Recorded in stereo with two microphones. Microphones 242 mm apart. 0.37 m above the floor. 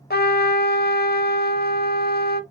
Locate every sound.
0.1 s a trumpet: 40° left (ahead or behind), 0.6 m